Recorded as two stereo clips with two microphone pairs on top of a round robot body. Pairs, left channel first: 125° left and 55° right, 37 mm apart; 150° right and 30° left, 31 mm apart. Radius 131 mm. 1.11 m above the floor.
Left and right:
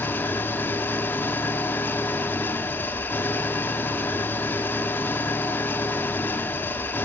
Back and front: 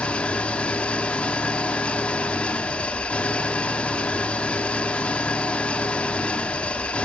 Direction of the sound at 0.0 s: 155° left.